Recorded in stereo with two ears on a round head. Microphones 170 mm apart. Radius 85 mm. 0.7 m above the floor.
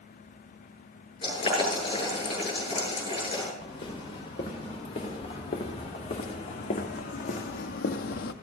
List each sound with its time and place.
1.2 s boiling: 30° left (ahead or behind), 7.5 m
3.6 s footsteps: 30° left (ahead or behind), 4.5 m; by 8.3 s 55° left (ahead or behind), 1.1 m